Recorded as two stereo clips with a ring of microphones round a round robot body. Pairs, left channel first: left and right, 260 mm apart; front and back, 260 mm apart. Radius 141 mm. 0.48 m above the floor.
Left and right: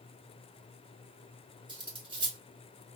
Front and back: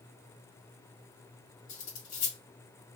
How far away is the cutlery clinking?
About 1.8 m.